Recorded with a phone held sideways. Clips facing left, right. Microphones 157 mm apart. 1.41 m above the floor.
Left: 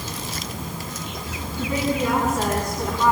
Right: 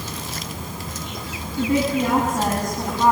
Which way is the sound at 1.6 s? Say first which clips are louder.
Right 4 dB; 50° right (ahead or behind).